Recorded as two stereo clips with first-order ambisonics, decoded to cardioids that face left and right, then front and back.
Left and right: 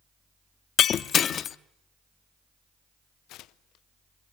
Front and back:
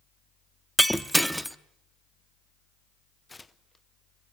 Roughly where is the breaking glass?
Left.